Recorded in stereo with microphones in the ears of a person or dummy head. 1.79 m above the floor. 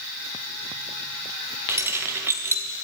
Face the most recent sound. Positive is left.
turn(degrees=-15)  # may be behind; listen again after turning